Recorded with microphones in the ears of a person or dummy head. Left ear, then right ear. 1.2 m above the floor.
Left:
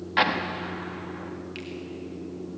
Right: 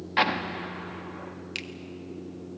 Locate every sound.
0.2 s an explosion: 5° right (ahead or behind), 1.3 m
1.6 s a finger snap: 40° right (ahead or behind), 1.5 m